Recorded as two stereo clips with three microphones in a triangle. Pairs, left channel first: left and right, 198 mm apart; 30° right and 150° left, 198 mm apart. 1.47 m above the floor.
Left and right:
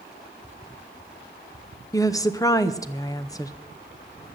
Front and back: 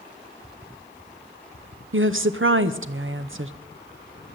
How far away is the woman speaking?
About 0.8 m.